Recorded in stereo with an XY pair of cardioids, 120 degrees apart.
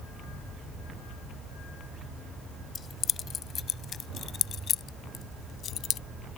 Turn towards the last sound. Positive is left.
turn(degrees=50)